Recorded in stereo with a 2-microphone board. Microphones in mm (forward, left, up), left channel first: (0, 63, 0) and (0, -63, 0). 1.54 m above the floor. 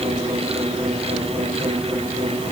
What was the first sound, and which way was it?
Only background noise.